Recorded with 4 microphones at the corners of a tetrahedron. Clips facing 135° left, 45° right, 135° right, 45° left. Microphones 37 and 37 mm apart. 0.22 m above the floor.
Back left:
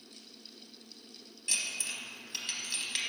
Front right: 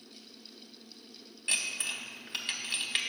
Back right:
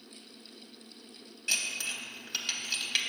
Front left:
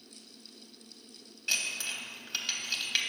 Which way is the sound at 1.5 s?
40° right.